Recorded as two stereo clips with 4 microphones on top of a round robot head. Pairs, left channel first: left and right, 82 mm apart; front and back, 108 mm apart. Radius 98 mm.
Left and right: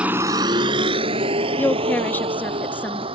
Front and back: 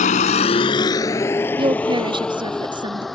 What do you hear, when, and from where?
0.0 s a vehicle: 10° right; by 3.1 s 90° right
1.6 s a woman speaking: 155° left